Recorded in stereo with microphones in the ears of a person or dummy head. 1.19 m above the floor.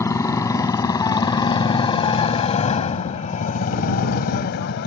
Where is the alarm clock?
I don't hear an alarm clock.